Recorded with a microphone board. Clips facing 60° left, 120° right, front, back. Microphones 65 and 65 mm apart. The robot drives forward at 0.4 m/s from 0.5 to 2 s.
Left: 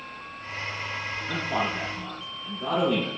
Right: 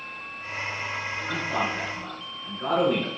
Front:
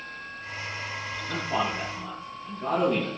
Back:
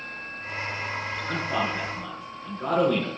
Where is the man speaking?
175° right, 6 m.